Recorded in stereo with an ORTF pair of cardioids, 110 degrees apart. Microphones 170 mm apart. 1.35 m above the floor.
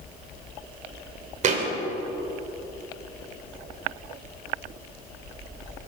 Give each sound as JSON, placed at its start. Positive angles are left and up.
{"t": 1.4, "sound": "a thud", "azimuth_deg": -45, "distance_m": 2.5}